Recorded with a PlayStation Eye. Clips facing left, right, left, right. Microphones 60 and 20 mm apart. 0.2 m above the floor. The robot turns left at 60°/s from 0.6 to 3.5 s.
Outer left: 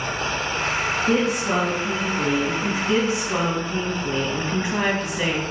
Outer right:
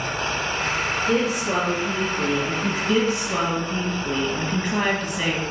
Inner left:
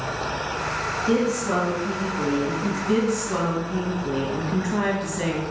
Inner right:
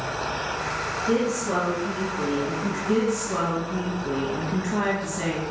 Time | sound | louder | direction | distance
1.1 | a woman speaking | outer left 1 dB, inner left 2 dB | 120° left | 2.5 m
2.9 | a woman speaking | even, inner left 1 dB | 55° left | 1.1 m